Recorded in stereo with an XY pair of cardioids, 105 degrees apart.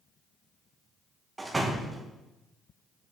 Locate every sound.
1.4 s a door slam: 20° right, 1.3 m